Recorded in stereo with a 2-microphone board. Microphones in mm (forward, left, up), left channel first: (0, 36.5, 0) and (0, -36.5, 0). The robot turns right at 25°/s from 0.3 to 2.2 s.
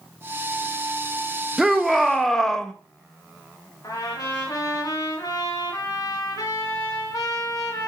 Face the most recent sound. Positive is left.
turn(degrees=60)  # may be behind; listen again after turning